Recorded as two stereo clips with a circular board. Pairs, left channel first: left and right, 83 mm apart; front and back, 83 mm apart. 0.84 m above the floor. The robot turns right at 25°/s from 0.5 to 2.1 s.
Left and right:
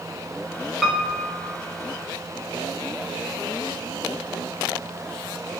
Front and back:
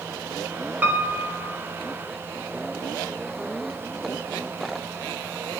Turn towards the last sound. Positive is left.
turn(degrees=-130)